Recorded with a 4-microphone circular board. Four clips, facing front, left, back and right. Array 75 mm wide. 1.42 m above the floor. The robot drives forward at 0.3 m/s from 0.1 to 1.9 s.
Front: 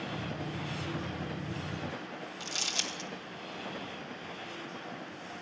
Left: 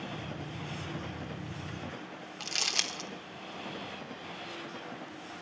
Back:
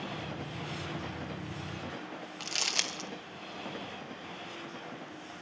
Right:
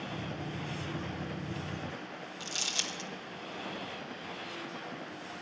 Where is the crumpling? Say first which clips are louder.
Left 4 dB, back 3 dB; 140° left, 0.6 m.